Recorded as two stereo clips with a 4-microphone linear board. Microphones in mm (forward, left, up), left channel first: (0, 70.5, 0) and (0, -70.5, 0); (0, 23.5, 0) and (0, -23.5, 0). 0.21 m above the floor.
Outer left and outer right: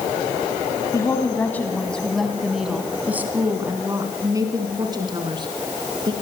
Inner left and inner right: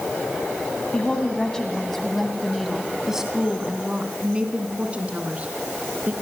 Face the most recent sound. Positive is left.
turn(degrees=-35)  # may be behind; listen again after turning